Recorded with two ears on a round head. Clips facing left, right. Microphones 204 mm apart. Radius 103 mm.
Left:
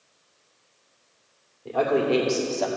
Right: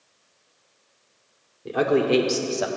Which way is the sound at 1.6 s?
25° right (ahead or behind).